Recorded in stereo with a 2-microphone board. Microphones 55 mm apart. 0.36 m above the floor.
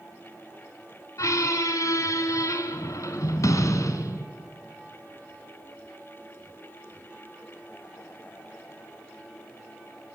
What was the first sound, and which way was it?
A squeak, 80° left.